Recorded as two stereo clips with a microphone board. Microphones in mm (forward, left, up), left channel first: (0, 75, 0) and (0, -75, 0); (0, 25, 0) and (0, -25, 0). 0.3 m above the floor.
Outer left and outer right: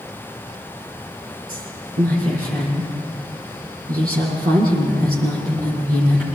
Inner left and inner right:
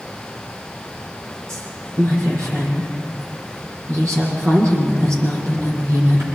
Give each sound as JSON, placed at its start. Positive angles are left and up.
{"t": 1.5, "sound": "a woman speaking", "side_deg": -70, "distance_m": 9.0}